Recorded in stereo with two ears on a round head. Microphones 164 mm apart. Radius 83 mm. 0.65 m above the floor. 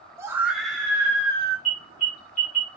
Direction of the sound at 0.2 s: 15° right (ahead or behind).